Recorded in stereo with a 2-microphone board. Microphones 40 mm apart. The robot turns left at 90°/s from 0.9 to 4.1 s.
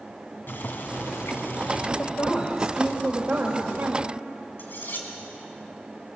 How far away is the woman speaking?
About 2.5 m.